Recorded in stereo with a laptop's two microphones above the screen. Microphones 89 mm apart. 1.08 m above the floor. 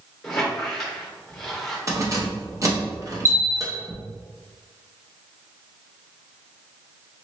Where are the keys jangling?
35° right (ahead or behind), 0.7 m.